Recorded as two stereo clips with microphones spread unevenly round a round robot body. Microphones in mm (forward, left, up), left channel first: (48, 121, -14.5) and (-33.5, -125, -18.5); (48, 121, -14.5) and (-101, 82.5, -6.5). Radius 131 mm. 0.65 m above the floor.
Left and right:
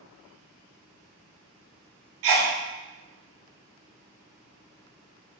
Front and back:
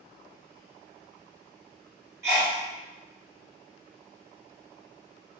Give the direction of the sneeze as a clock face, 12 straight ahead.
3 o'clock.